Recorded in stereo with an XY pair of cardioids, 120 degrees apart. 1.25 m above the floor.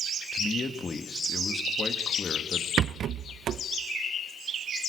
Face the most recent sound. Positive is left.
turn(degrees=-55)